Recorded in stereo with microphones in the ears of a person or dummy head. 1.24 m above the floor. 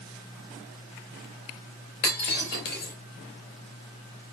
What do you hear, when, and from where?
2.0 s breaking glass: 60° left (ahead or behind), 3 m